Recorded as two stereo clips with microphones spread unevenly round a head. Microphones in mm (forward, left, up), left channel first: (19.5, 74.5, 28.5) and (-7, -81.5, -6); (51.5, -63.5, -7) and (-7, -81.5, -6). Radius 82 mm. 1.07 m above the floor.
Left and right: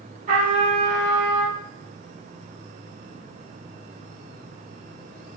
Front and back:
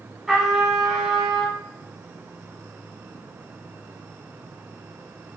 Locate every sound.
0.3 s a trumpet: 80° right, 1.4 m